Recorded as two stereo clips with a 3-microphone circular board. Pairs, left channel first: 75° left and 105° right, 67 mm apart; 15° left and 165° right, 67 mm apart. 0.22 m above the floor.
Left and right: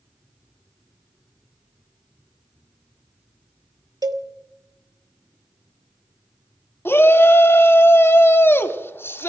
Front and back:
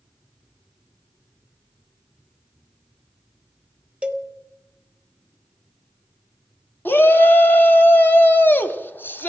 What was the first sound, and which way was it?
A cowbell, 95° right.